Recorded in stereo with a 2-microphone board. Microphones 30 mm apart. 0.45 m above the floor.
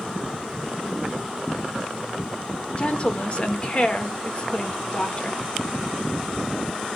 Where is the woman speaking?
40° left (ahead or behind), 1.0 m.